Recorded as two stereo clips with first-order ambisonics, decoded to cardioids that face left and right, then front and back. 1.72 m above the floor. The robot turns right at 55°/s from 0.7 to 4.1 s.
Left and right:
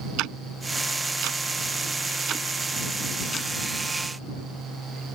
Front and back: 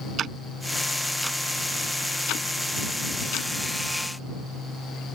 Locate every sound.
0.2 s ticking: 120° right; by 3.5 s 30° left